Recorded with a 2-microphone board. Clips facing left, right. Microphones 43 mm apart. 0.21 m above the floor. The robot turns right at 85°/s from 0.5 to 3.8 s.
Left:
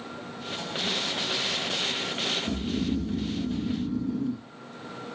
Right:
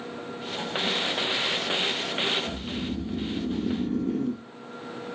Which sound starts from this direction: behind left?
Snoring, at 2.5 s.